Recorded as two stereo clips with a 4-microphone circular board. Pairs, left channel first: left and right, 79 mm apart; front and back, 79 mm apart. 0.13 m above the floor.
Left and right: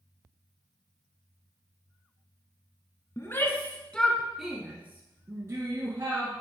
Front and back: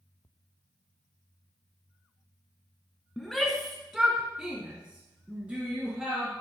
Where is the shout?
85° left, 1.3 m; by 6.3 s 115° right, 1.8 m.